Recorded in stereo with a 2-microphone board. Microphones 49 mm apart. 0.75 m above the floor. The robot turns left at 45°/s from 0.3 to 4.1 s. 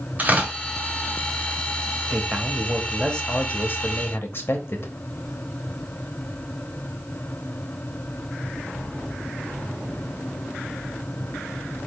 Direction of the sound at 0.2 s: 35° right (ahead or behind).